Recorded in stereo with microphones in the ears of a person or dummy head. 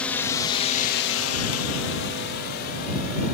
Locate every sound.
0.0 s a drone: 5° left (ahead or behind); by 3.3 s 50° left (ahead or behind)